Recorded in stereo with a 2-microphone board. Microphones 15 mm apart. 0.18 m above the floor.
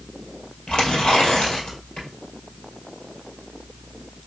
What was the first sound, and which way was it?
Tearing paper, 70° left (ahead or behind).